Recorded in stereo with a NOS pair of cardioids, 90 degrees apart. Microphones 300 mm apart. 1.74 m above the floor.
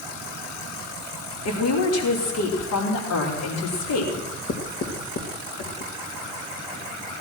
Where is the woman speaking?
55° left, 5 m.